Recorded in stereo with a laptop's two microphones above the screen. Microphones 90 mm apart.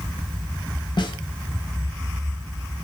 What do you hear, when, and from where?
1.0 s a snare drum: 55° left (ahead or behind), 0.9 m